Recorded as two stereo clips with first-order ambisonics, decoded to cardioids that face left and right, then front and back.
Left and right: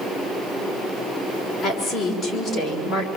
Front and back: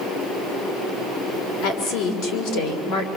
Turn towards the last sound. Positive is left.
turn(degrees=15)